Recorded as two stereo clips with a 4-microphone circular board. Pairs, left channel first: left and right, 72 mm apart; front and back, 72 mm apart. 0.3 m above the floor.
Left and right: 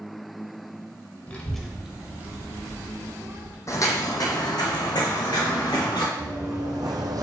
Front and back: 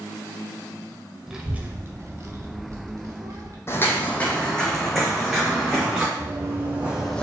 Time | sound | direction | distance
1.3 | a child speaking | 110° left | 0.5 m
3.7 | footsteps | 50° left | 0.6 m
6.2 | running footsteps | 125° right | 1.6 m